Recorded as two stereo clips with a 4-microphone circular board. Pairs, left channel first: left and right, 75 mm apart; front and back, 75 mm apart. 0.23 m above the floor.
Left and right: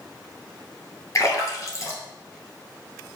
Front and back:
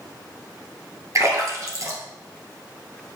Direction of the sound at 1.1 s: 135° left.